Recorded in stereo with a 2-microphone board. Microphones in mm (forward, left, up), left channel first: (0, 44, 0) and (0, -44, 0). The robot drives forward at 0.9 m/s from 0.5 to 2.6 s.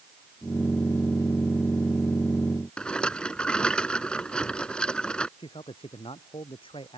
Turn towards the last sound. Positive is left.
turn(degrees=80)